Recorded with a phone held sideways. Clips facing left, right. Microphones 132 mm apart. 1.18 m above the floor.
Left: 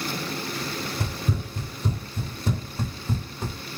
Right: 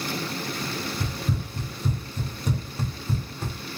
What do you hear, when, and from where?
1.0 s running footsteps: 40° left (ahead or behind), 2 m; by 3.6 s 10° left (ahead or behind), 2.5 m